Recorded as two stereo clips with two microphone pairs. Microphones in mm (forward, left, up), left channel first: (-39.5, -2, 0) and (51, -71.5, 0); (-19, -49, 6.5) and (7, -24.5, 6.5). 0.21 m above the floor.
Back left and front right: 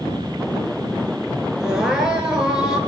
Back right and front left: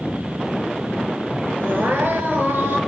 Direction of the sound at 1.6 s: 45° left.